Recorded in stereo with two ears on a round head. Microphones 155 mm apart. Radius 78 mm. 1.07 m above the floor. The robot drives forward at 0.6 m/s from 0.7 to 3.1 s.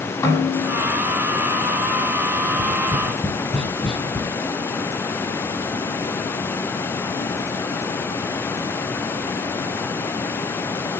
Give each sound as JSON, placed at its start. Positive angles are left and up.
{"t": 0.2, "sound": "a snare drum", "side_deg": 20, "distance_m": 6.5}
{"t": 2.4, "sound": "tapping", "side_deg": 0, "distance_m": 5.0}